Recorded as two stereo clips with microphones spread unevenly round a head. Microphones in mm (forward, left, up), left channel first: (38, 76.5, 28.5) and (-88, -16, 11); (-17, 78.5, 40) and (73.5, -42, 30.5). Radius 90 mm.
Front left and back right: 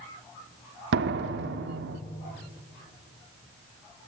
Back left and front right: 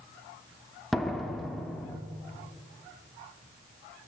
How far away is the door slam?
About 1.5 m.